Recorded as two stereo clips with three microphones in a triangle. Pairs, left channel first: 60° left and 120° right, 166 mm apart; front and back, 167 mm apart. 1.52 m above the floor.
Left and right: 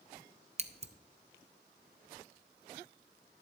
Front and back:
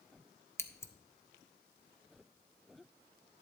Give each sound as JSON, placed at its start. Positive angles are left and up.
{"t": 0.6, "sound": "scissors", "azimuth_deg": -70, "distance_m": 0.5}